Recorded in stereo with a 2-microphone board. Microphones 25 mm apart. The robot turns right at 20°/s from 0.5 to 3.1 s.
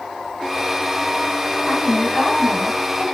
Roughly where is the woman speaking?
Centre.